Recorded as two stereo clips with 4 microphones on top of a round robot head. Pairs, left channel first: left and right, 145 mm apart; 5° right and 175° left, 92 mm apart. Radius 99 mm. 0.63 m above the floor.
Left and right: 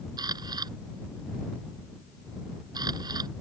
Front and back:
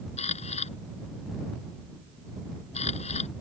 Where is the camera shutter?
20° right.